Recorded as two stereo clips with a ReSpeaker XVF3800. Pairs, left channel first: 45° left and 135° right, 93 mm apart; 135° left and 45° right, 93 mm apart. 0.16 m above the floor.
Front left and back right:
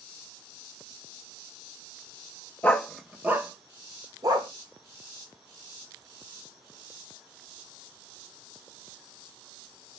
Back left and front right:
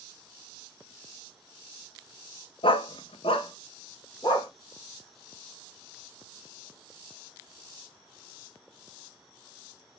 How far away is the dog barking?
About 0.6 m.